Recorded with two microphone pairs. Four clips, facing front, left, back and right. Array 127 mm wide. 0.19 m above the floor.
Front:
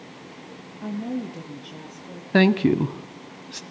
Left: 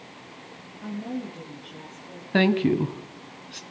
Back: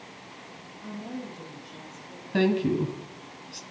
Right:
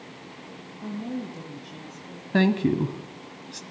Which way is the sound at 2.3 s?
10° left.